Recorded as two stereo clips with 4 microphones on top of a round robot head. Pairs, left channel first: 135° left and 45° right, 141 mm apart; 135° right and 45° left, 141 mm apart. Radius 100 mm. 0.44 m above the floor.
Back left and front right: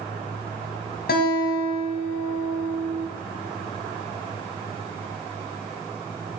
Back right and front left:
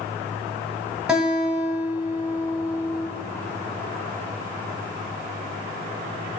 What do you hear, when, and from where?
1.1 s a guitar: 130° left, 0.9 m